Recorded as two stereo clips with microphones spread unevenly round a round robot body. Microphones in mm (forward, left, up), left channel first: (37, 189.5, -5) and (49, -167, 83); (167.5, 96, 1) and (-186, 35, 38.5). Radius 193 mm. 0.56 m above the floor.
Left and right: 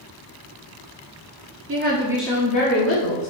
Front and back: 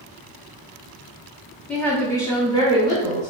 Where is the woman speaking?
60° right, 1.0 m; by 3.3 s 80° left, 1.7 m.